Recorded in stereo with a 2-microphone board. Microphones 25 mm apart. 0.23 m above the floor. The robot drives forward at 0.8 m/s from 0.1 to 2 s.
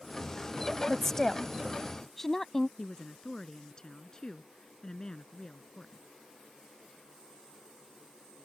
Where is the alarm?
I don't hear an alarm.